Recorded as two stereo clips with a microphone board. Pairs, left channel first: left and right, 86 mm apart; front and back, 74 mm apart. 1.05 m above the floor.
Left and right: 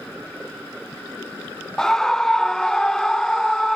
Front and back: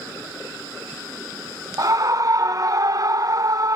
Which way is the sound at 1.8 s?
170° left.